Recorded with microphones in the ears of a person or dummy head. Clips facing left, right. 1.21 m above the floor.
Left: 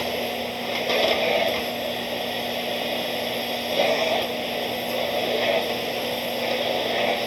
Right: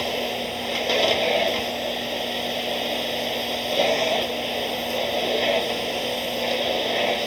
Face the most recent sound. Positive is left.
turn(degrees=-5)  # may be behind; listen again after turning